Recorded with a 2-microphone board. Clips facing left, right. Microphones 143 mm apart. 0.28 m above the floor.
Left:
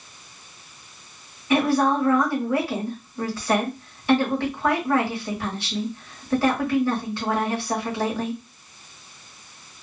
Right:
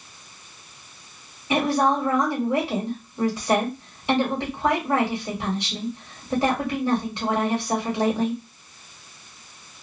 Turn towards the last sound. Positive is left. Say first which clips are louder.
# left 1 dB
turn(degrees=-20)  # may be behind; listen again after turning